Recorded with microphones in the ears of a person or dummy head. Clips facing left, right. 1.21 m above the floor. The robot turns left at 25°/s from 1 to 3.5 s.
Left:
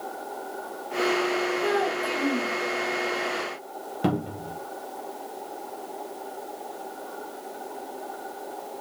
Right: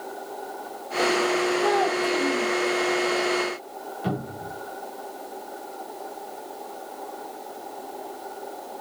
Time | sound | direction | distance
1.6 | a child speaking | 15° left (ahead or behind) | 4.5 m
4.0 | a cupboard door | 80° left | 2 m